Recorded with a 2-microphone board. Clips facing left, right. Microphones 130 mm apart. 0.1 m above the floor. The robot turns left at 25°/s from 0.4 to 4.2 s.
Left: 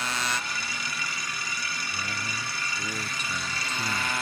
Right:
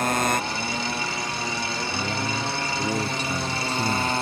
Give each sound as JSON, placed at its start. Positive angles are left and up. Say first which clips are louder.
{"t": 0.0, "sound": "a motorcycle", "louder": "right 9 dB", "azimuth_deg": -50}
{"t": 1.9, "sound": "a man speaking", "louder": "right 8 dB", "azimuth_deg": -65}